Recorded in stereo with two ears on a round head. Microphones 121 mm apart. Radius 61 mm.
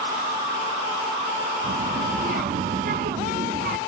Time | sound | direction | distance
1.6 | a child speaking | 65° right (ahead or behind) | 0.6 m